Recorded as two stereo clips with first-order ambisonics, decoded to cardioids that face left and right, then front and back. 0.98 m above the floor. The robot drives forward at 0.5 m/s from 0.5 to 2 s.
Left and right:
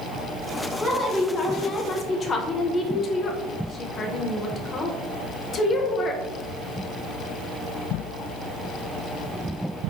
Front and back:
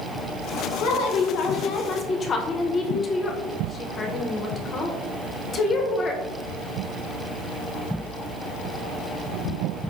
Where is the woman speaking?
15° left, 0.9 m; by 6.2 s 50° left, 0.5 m.